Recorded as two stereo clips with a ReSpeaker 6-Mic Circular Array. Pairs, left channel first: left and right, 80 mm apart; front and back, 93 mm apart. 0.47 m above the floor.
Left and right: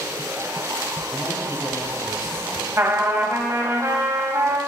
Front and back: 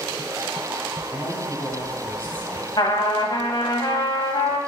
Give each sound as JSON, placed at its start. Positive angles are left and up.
{"t": 1.1, "sound": "a man speaking", "azimuth_deg": 30, "distance_m": 2.5}
{"t": 2.8, "sound": "a trumpet", "azimuth_deg": -35, "distance_m": 1.4}